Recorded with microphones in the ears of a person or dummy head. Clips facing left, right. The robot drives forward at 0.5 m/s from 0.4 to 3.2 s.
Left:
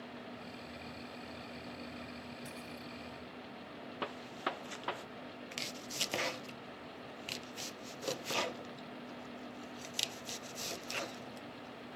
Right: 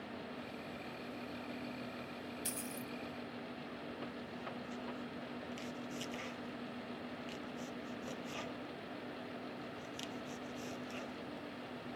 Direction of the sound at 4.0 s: 85° left.